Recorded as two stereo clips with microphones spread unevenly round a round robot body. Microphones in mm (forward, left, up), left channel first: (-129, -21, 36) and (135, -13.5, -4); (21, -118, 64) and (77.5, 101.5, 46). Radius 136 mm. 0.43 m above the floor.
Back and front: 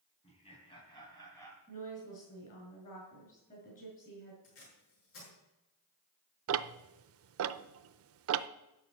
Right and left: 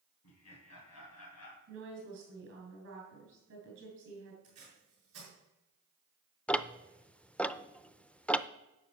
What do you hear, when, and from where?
0.2 s laughter: 110° right, 3.5 m; by 1.6 s 95° right, 3 m
1.7 s a woman speaking: 120° left, 6 m
4.4 s tape being pulled: 140° left, 7 m
6.5 s ticking: 15° right, 0.6 m